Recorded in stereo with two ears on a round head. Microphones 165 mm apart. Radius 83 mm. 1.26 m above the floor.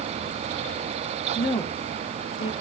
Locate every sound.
1.4 s a woman speaking: centre (ahead or behind), 0.9 m; by 2.5 s 90° left, 1.0 m